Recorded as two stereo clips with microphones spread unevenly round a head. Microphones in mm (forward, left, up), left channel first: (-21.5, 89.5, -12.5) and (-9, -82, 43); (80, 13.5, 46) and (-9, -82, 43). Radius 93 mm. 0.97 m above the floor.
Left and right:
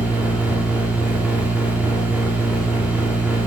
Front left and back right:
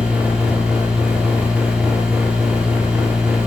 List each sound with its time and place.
0.0 s a machine running: 160° left, 0.9 m